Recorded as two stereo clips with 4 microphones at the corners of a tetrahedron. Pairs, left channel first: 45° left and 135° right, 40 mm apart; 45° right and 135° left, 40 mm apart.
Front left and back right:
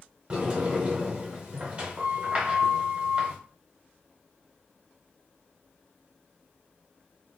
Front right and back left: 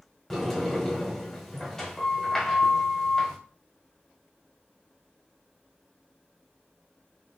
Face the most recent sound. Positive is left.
turn(degrees=-110)